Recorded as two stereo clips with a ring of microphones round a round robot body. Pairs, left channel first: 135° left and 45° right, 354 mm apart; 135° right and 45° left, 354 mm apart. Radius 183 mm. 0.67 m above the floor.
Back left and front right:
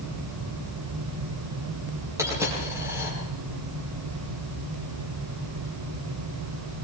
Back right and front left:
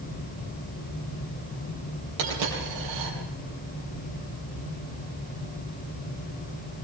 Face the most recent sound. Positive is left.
turn(degrees=35)